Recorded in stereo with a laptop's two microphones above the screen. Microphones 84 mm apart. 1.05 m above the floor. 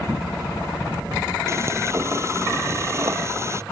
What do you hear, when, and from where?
1.5 s frying: 35° right (ahead or behind)